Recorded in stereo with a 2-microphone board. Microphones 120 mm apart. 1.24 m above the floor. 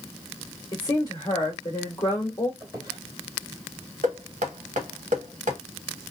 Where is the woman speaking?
30° left (ahead or behind), 1.4 m.